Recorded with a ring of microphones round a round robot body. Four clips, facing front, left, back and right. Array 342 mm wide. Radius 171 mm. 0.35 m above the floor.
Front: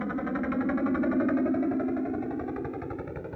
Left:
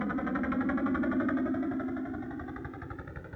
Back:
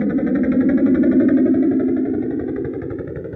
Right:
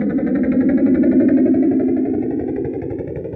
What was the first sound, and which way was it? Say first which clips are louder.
A helicopter: right 15 dB, back 13 dB; 130° right.